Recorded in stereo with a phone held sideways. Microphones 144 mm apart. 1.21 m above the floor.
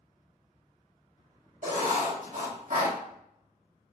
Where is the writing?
65° right (ahead or behind), 1.1 m.